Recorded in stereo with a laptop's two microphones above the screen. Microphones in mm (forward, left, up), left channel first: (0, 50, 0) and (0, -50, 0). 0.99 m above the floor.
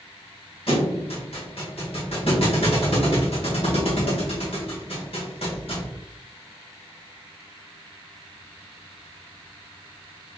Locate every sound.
0.7 s a thud: 65° left (ahead or behind), 1.5 m